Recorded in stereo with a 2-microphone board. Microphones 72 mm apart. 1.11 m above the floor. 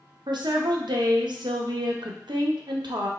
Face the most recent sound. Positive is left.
turn(degrees=-90)